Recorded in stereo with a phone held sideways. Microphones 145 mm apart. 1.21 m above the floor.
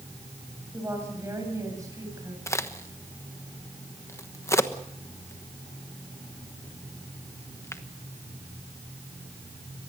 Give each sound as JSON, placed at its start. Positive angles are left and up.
{"t": 0.7, "sound": "a woman speaking", "side_deg": -20, "distance_m": 6.0}
{"t": 2.5, "sound": "a crack", "side_deg": 20, "distance_m": 1.2}